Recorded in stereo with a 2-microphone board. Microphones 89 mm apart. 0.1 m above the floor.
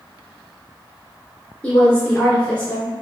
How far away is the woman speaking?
About 1.2 m.